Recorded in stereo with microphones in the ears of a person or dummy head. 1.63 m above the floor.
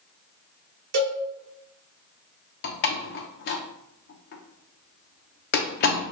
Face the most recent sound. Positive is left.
turn(degrees=45)  # may be behind; listen again after turning